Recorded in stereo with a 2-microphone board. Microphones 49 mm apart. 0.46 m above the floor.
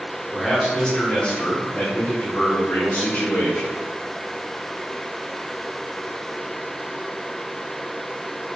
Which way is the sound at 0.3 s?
Centre (ahead or behind).